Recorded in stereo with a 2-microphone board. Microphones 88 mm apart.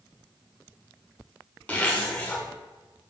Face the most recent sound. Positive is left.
turn(degrees=15)  # may be behind; listen again after turning